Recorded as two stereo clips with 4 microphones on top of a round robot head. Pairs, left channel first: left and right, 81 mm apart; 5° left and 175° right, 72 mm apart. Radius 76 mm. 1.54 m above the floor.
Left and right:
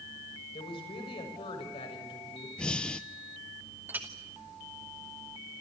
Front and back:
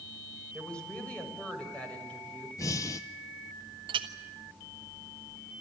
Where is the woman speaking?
80° left, 6.5 m.